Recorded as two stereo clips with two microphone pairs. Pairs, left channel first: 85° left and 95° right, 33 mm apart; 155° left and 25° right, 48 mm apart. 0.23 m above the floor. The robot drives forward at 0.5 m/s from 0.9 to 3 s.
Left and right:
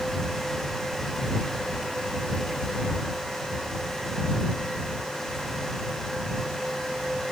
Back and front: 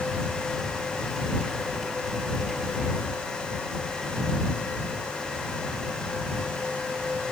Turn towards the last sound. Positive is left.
No sound to turn to.